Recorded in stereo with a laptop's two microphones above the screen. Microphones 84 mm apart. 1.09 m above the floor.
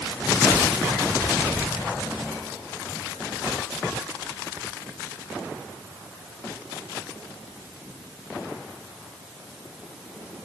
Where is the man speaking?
No man speaking in this recording.